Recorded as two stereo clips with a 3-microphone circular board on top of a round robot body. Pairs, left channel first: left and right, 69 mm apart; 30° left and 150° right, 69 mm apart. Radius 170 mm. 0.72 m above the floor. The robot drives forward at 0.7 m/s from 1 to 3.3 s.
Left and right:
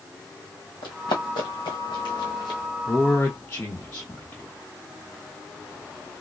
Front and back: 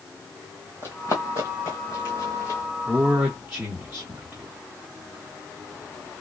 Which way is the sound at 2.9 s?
135° left.